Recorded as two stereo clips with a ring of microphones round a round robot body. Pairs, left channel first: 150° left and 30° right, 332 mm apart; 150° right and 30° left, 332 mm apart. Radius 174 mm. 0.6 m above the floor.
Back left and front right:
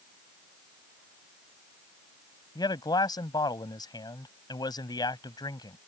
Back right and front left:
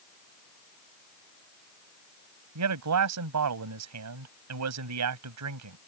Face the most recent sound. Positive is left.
turn(degrees=70)